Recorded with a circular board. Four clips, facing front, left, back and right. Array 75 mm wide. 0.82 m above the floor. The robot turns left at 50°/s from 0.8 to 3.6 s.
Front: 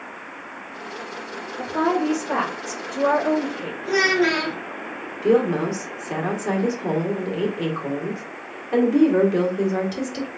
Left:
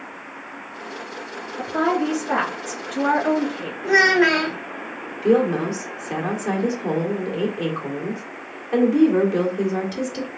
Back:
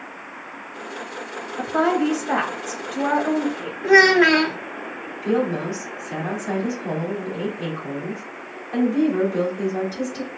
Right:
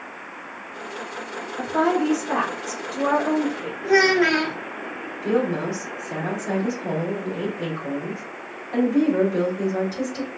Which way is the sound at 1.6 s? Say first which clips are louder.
Even, back 2 dB; 170° right.